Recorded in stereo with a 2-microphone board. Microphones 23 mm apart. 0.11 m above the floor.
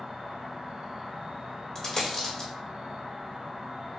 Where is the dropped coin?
25° left (ahead or behind), 1.5 m.